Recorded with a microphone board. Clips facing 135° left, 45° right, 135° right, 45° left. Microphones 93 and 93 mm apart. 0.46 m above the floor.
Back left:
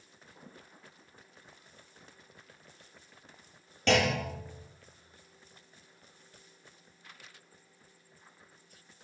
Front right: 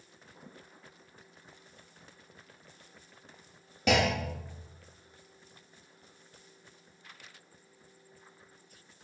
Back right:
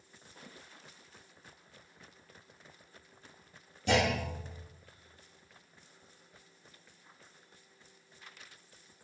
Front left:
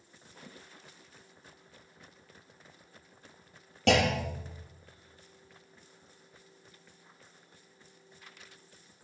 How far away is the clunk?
About 2 m.